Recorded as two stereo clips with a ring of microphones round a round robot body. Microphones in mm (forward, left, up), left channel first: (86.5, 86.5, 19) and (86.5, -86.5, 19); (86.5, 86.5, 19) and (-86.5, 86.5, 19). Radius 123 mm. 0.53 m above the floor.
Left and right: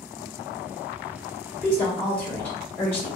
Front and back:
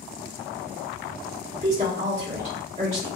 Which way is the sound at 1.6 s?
165° left.